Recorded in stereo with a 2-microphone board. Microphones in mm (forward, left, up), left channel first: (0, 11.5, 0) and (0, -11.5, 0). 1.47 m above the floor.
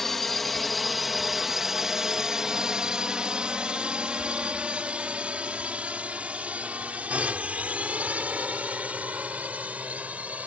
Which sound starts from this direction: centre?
A drone, at 0.0 s.